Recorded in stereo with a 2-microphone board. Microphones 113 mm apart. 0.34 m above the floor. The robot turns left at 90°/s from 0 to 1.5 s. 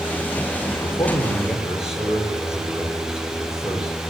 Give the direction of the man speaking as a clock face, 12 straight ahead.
10 o'clock.